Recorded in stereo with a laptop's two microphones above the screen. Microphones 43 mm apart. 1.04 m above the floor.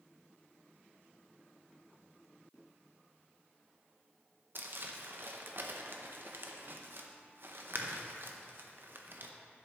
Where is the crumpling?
50° right (ahead or behind), 0.8 m.